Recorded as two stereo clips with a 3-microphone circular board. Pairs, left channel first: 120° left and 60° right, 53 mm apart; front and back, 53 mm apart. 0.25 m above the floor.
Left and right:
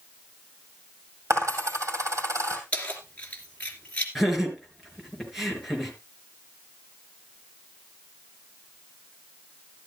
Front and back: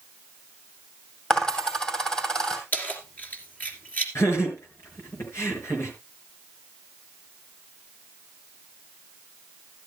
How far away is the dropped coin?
About 2.5 m.